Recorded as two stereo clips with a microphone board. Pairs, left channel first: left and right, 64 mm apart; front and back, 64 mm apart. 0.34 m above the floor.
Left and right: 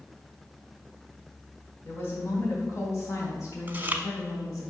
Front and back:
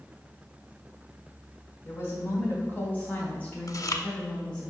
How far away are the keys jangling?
No keys jangling in this recording.